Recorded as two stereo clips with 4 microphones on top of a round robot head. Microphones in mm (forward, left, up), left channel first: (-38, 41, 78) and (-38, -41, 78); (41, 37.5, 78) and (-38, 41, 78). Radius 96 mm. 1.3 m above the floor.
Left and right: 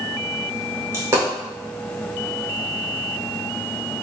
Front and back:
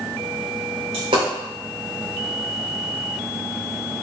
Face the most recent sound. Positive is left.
turn(degrees=-140)